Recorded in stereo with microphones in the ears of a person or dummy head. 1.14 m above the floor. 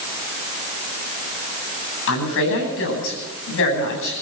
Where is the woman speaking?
75° left (ahead or behind), 9.5 m.